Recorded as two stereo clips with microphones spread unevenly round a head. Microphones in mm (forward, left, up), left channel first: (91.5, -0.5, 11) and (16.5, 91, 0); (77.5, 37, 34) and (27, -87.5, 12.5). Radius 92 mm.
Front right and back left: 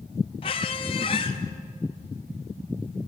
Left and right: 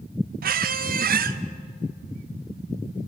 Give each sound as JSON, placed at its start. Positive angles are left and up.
{"t": 0.4, "sound": "a squeak", "azimuth_deg": -105, "distance_m": 1.0}